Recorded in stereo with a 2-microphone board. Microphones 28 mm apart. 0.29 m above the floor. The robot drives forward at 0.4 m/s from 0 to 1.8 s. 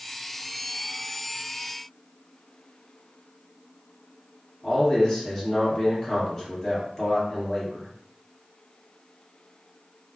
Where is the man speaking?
15° left (ahead or behind), 1.7 m.